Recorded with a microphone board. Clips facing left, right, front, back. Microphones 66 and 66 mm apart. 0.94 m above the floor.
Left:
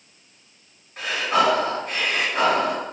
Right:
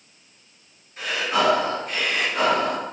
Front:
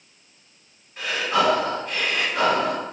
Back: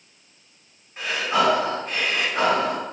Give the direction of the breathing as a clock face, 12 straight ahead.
8 o'clock.